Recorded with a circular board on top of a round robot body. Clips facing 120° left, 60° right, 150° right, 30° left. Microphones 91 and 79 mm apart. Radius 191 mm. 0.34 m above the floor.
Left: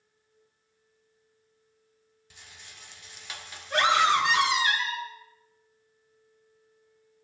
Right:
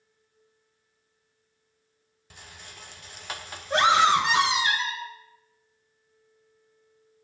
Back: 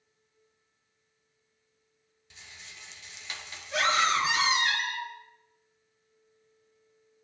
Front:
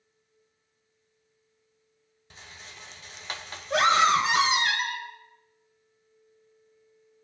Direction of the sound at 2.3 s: 15° right.